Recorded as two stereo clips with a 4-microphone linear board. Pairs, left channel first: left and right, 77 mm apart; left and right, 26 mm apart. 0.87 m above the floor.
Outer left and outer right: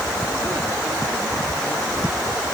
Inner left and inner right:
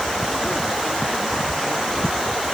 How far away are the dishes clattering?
I don't hear dishes clattering.